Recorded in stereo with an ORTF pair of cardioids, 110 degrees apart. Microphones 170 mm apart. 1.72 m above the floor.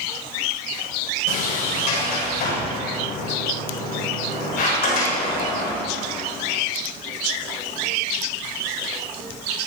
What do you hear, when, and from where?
1.3 s a sliding door: 60° left, 7 m